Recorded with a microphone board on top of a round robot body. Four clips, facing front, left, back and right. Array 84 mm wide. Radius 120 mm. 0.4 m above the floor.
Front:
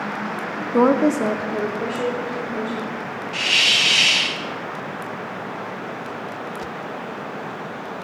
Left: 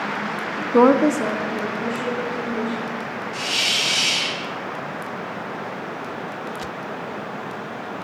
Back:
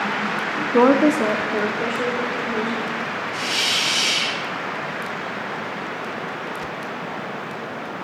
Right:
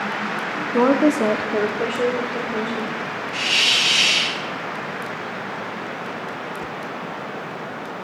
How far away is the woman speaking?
About 0.8 m.